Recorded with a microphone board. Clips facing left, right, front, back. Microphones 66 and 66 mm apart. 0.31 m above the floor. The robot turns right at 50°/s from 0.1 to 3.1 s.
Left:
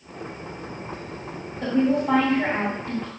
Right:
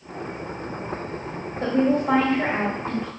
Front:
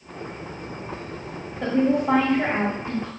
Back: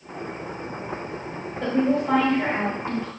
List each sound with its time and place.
1.6 s a woman speaking: 85° right, 1.7 m; by 3.1 s 10° right, 1.7 m